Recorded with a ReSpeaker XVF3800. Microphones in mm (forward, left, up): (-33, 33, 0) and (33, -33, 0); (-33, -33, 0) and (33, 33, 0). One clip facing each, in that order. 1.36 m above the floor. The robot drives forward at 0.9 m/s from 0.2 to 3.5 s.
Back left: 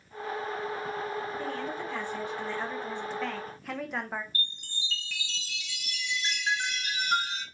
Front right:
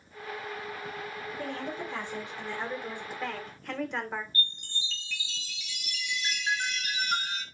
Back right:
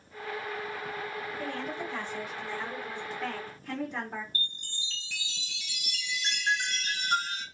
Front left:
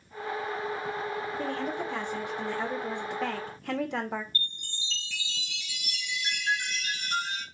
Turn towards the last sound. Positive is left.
turn(degrees=180)